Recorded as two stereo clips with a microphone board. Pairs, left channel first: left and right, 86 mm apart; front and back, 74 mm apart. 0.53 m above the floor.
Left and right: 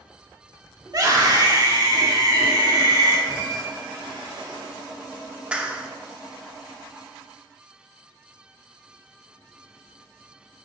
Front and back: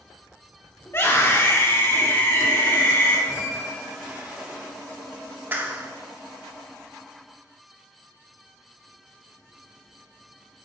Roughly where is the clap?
Behind right.